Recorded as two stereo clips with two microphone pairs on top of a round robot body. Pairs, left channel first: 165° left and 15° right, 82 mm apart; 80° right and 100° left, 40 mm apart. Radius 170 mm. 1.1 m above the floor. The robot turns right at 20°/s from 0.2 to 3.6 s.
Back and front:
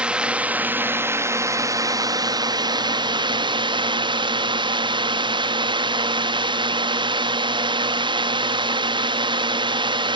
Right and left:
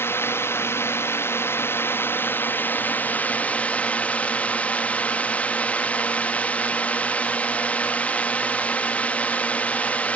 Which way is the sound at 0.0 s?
90° right.